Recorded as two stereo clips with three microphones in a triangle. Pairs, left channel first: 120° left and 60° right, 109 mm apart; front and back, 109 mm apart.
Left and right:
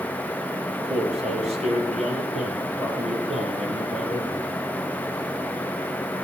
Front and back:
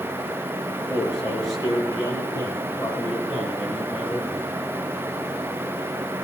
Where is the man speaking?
50° right, 7.5 m; by 4.4 s 65° right, 5.5 m.